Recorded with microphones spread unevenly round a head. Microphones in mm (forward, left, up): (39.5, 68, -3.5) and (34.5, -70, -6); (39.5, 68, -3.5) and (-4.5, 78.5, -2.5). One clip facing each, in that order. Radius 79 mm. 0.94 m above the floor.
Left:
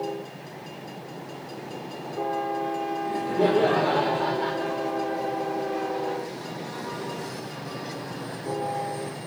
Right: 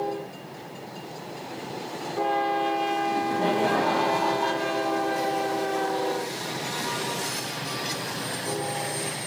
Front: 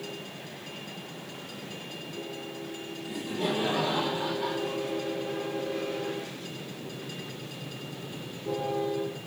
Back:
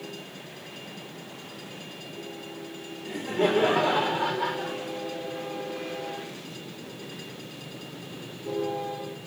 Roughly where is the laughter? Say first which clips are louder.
Left 1 dB, back 6 dB; behind left.